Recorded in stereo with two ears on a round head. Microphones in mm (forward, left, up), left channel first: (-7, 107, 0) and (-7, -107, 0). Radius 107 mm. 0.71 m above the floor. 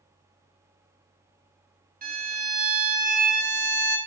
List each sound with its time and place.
2.0 s a violin: 35° right (ahead or behind), 0.8 m